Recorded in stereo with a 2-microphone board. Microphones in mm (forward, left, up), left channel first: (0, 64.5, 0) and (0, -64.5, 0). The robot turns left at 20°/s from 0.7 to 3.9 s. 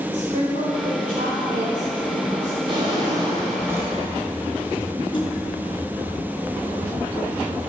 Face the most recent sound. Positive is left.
turn(degrees=35)  # may be behind; listen again after turning